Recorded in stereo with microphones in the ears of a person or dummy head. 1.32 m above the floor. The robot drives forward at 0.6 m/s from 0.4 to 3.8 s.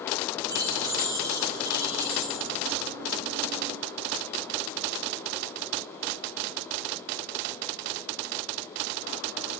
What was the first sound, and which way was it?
Keys jangling, 20° right (ahead or behind).